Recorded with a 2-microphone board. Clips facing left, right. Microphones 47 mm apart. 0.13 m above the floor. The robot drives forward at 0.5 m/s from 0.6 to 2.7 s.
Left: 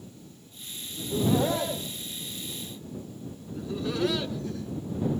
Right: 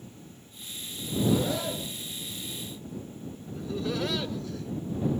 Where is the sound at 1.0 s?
45° left (ahead or behind), 6 m; by 4.5 s 40° left (ahead or behind), 6.5 m.